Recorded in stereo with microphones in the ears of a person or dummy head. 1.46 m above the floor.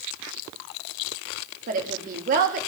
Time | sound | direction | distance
1.7 | a woman speaking | 50° right (ahead or behind) | 2 m